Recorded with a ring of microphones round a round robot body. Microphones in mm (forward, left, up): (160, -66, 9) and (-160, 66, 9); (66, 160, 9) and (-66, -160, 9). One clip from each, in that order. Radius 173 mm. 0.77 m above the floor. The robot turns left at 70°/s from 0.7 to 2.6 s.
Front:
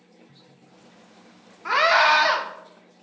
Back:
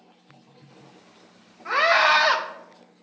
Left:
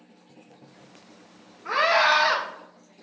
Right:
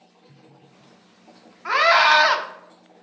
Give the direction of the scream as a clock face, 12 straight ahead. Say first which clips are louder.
Front 1 dB, right 5 dB; 3 o'clock.